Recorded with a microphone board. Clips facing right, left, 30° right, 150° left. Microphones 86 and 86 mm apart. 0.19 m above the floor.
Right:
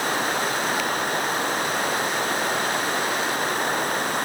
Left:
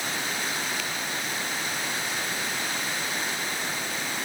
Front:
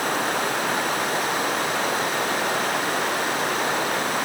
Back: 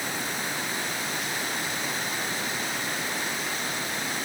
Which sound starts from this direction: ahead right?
Running water, at 0.0 s.